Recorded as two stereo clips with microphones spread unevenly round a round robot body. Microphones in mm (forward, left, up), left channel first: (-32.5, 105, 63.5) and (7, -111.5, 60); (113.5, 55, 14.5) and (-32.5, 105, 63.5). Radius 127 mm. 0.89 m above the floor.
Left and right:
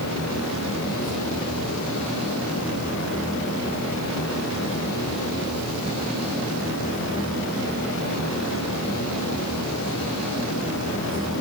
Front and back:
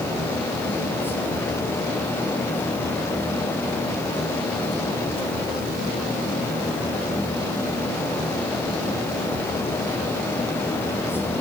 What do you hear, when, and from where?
Only background noise.